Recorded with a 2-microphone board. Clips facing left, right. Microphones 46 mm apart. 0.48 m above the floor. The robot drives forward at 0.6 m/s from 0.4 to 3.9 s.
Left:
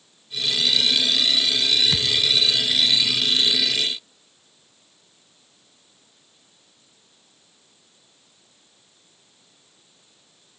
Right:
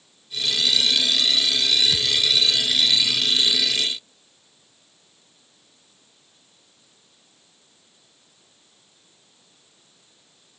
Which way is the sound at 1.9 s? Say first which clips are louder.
Even; 35° left (ahead or behind).